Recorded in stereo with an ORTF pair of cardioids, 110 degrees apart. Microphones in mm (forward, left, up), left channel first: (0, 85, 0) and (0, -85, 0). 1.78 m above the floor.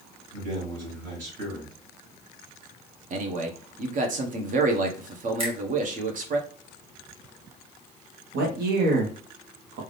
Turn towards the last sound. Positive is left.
turn(degrees=-70)